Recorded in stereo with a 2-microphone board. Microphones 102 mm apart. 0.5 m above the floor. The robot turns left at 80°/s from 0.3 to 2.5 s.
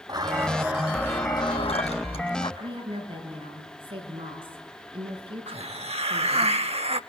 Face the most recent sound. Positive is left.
turn(degrees=-85)